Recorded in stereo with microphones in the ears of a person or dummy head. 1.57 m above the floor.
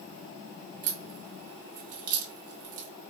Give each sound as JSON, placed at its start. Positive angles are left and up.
{"t": 0.8, "sound": "a crack", "side_deg": -50, "distance_m": 1.0}